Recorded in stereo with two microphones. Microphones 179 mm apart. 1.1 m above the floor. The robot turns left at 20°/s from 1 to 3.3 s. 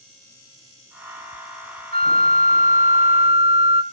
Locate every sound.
1.9 s a flute: 55° right (ahead or behind), 0.5 m; by 3.8 s 35° right (ahead or behind), 0.5 m